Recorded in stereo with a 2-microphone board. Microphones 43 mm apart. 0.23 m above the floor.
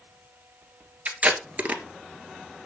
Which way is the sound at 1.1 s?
40° right (ahead or behind).